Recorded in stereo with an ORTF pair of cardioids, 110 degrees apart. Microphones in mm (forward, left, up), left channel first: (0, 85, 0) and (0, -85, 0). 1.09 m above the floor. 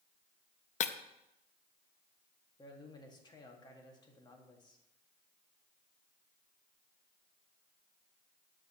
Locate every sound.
0.8 s breaking glass: 45° left, 0.6 m
2.6 s a man speaking: 25° left, 1.8 m